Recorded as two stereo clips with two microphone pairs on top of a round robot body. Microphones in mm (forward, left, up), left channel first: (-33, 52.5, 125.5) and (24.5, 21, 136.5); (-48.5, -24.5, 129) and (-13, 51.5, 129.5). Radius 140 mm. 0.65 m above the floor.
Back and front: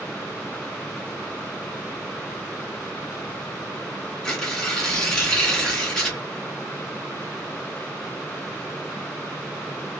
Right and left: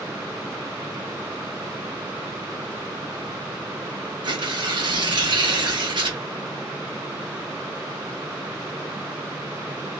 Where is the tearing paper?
75° left, 2 m.